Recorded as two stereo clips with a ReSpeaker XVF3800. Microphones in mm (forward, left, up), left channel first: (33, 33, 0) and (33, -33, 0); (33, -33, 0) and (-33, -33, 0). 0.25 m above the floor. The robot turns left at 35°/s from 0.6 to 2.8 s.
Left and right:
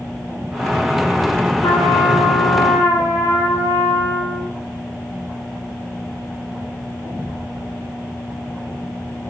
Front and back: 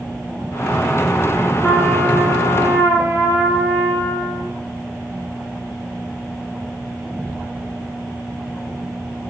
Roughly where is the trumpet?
Left.